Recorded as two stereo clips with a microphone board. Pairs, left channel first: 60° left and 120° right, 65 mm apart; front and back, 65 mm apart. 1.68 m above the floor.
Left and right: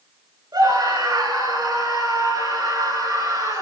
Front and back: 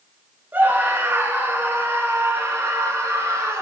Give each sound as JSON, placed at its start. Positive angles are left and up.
{"t": 0.5, "sound": "a scream", "azimuth_deg": -120, "distance_m": 5.0}